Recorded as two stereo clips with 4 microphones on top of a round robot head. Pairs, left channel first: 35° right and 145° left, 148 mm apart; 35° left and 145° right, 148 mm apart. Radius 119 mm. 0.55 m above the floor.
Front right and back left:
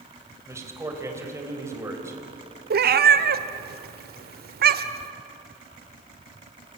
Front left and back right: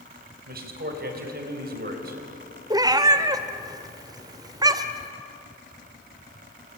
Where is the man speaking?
145° right, 4 m.